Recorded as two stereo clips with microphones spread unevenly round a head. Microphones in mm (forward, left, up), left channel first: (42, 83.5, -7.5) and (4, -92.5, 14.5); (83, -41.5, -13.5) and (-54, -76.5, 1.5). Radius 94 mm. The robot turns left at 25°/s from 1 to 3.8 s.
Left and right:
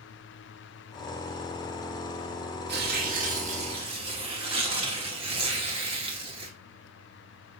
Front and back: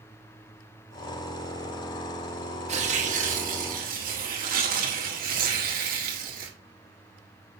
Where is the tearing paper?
135° right, 2.5 m; by 6.5 s 160° right, 2.5 m.